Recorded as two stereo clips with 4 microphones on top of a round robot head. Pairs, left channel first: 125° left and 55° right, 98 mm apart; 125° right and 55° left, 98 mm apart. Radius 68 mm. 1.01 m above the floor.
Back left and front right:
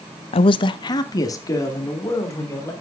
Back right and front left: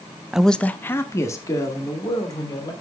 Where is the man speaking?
140° left, 0.6 m; by 2.7 s 175° right, 3.5 m.